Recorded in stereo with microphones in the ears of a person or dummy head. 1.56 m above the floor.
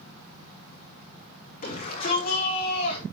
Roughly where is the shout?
Left.